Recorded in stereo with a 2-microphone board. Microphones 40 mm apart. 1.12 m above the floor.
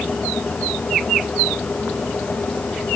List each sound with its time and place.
Only background noise.